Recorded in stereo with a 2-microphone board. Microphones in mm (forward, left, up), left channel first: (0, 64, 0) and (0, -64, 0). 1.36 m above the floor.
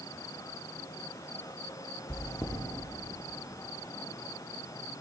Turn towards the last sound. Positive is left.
turn(degrees=25)  # may be behind; listen again after turning